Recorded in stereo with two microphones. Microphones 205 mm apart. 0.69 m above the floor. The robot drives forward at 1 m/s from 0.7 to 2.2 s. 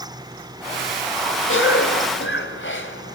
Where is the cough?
80° left, 3.5 m; by 3.1 s 75° left (ahead or behind), 3.5 m.